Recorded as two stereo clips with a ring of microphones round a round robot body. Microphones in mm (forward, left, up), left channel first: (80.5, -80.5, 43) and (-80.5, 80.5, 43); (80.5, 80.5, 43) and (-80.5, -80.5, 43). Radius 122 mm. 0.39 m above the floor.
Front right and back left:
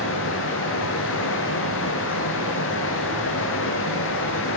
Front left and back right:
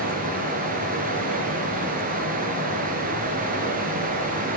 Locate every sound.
0.0 s running water: 80° right, 7 m